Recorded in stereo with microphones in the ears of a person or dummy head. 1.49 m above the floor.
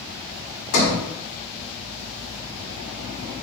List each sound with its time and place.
0.7 s a sliding door: 50° left (ahead or behind), 4 m